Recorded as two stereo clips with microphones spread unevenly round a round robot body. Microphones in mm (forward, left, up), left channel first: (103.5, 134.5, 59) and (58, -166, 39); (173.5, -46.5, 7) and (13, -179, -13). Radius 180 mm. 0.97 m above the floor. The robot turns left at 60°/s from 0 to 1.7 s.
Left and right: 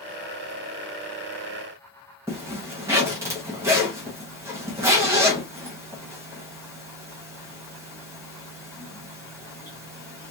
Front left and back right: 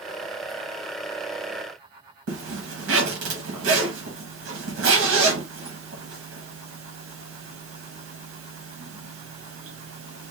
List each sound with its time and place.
2.3 s a zipper: straight behind, 0.8 m